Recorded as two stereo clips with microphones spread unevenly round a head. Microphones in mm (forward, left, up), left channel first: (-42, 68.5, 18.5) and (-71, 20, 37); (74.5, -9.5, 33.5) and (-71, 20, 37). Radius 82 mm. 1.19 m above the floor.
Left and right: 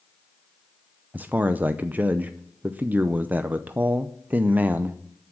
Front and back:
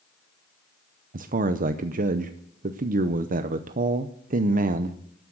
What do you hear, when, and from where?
1.1 s a man speaking: 170° left, 0.7 m